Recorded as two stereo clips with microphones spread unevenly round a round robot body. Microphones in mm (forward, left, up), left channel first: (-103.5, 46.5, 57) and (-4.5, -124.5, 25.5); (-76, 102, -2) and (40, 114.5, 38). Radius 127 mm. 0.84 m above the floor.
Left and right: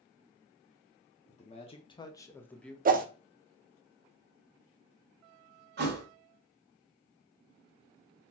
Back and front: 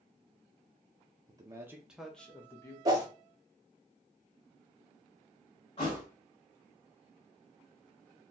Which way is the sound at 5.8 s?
100° right.